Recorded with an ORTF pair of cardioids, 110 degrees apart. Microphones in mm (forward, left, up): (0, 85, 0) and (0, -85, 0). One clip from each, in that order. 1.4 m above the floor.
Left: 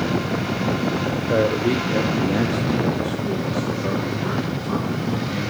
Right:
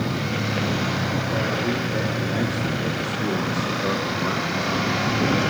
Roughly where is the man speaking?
Ahead left.